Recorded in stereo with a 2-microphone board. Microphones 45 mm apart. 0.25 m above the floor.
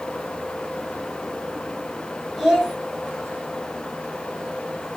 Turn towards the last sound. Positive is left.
turn(degrees=5)  # may be behind; listen again after turning